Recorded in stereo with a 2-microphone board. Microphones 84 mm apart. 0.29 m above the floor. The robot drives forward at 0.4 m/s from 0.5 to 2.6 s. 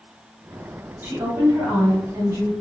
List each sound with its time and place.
1.0 s a woman speaking: 35° right (ahead or behind), 1.3 m; by 2.5 s 40° right (ahead or behind), 1.2 m